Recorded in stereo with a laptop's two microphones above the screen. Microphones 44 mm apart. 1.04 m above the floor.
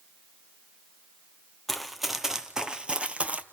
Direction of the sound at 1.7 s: Centre (ahead or behind).